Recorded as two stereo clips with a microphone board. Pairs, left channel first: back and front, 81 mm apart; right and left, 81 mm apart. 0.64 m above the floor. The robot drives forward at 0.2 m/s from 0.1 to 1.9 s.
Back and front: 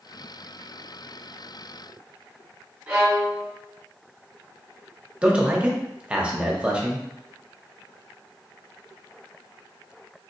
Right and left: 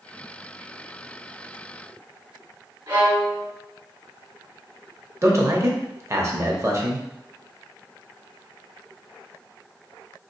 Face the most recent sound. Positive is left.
turn(degrees=65)